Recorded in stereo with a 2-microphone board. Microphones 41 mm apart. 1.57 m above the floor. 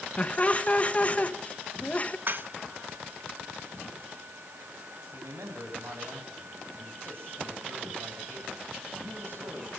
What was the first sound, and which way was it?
Laughter, 35° left (ahead or behind).